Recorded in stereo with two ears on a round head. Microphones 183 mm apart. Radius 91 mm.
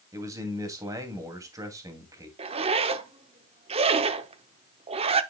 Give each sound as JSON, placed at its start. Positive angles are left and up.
{"t": 0.1, "sound": "a man speaking", "side_deg": -15, "distance_m": 2.5}
{"t": 2.4, "sound": "a zipper", "side_deg": -30, "distance_m": 0.7}